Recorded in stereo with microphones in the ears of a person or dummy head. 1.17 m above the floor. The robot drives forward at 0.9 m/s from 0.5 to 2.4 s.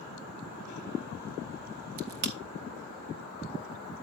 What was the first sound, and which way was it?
A crack, 45° right (ahead or behind).